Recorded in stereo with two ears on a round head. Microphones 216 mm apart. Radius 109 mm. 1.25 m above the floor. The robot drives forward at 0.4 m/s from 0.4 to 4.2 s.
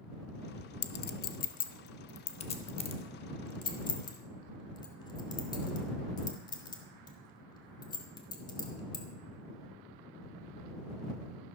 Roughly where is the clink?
Left.